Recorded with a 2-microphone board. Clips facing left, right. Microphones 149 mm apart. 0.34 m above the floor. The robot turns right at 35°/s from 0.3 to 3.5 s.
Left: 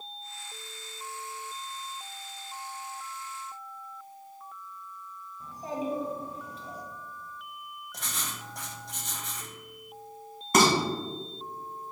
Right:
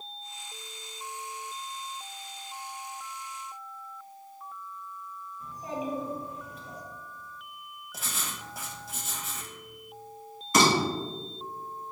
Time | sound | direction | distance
5.4 | a child speaking | 35° left (ahead or behind) | 1.7 m
7.9 | writing | 5° right (ahead or behind) | 0.7 m
10.5 | dishes clattering | 55° left (ahead or behind) | 1.6 m